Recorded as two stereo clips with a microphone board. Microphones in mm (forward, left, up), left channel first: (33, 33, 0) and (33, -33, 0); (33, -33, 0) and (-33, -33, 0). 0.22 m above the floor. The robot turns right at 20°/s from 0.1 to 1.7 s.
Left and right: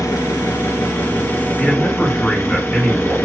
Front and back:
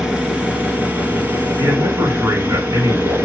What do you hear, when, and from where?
0.0 s an engine running: 100° left, 2.0 m; by 3.3 s 130° left, 2.0 m
1.6 s a man speaking: 160° left, 2 m; by 3.2 s 165° left, 2 m